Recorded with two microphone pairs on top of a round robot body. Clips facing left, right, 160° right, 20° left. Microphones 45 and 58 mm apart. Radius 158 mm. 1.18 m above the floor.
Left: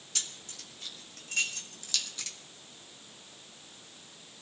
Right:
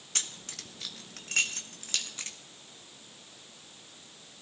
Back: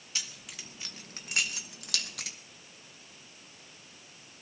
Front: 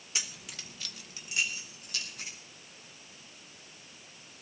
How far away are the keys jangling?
About 0.7 m.